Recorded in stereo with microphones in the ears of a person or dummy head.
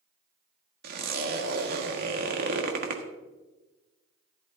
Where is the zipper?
55° right (ahead or behind), 1.7 m.